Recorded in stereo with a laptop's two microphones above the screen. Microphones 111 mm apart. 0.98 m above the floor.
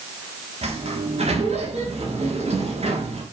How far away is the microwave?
No microwave in this recording.